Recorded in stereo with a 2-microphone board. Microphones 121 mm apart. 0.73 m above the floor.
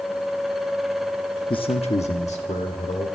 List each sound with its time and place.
1.5 s a man speaking: 45° left (ahead or behind), 0.7 m; by 3.1 s 75° left (ahead or behind), 2 m